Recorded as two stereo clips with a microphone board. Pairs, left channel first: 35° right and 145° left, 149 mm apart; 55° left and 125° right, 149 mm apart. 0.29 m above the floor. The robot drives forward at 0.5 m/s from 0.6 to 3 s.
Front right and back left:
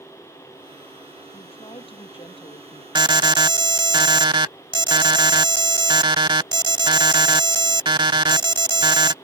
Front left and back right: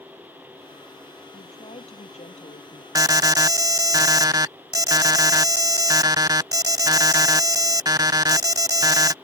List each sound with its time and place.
1.3 s a woman speaking: 15° left
3.0 s an alarm: 175° right